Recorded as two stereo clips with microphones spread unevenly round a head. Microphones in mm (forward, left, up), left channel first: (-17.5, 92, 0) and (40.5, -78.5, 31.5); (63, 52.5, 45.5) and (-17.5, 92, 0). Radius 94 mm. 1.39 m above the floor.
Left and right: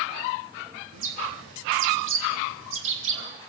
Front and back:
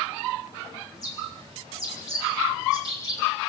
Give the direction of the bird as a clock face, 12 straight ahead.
3 o'clock.